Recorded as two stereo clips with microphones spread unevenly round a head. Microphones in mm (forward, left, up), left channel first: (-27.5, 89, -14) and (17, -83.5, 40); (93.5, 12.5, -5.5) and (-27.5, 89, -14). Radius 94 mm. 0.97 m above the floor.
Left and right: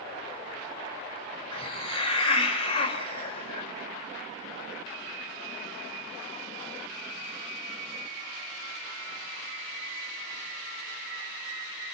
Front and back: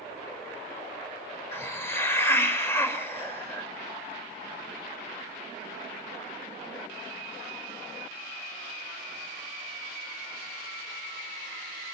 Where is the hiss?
40° left, 2 m.